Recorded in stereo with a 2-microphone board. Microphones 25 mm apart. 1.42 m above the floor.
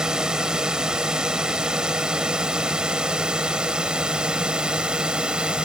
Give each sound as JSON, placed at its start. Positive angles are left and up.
{"t": 0.0, "sound": "a drone", "side_deg": -30}